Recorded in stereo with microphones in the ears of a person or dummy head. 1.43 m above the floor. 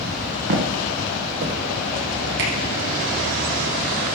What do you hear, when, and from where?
0.5 s footsteps: 60° right (ahead or behind), 3 m; by 1.6 s 50° right (ahead or behind), 2 m
2.4 s a finger snap: 60° right (ahead or behind), 5.5 m